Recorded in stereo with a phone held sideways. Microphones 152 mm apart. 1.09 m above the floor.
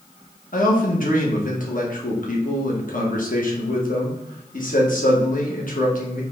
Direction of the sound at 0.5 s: 65° left (ahead or behind).